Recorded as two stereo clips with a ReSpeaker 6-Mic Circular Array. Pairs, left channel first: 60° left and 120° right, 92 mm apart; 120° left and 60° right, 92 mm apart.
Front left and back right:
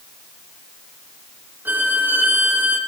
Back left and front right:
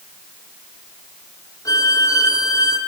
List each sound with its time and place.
1.6 s a violin: 170° left, 3 m